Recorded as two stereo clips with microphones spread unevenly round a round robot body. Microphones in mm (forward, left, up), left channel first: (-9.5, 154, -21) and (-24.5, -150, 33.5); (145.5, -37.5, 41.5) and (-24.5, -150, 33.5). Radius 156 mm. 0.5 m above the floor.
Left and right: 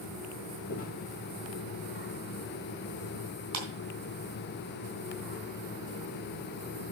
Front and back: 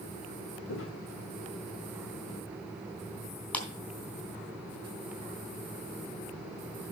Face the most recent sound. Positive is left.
turn(degrees=-50)